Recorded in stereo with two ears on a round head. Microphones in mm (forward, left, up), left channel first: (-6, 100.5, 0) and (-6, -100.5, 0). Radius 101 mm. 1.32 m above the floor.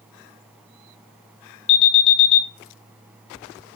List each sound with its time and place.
1.7 s an alarm: 55° left (ahead or behind), 3 m